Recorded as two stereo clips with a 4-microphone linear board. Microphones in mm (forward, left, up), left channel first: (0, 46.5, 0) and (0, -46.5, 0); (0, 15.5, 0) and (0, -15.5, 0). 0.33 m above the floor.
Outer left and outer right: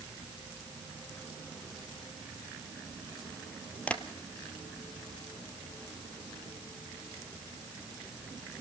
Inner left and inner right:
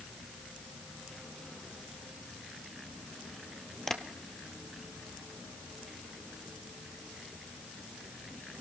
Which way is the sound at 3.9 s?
15° left (ahead or behind).